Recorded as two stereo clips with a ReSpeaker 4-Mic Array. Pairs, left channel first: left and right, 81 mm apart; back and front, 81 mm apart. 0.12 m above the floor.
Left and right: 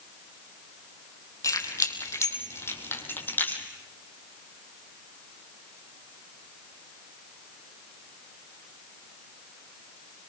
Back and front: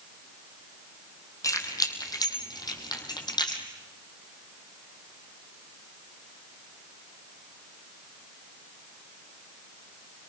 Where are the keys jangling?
135° left, 3 m; by 3.6 s 155° left, 3.5 m.